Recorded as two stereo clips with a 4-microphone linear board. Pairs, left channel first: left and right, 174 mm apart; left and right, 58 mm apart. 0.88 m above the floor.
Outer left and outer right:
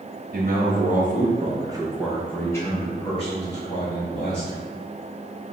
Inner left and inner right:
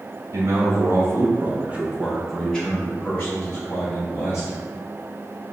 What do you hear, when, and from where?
0.3 s a man speaking: 60° right (ahead or behind), 1.5 m; by 4.6 s 45° left (ahead or behind), 2.5 m